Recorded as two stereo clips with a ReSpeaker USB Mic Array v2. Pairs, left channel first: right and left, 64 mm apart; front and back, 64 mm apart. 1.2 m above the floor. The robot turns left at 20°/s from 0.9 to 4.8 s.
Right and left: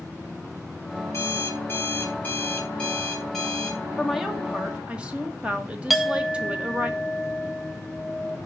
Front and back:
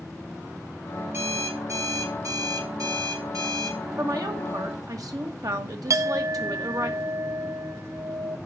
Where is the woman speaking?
175° left, 1.6 m; by 6.9 s 160° left, 1.6 m.